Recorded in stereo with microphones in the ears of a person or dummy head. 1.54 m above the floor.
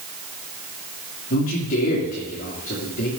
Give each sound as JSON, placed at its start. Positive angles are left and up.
{"t": 1.3, "sound": "a man speaking", "side_deg": 45, "distance_m": 2.5}